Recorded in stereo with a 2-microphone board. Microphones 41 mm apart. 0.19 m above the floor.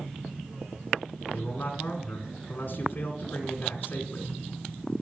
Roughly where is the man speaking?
Left.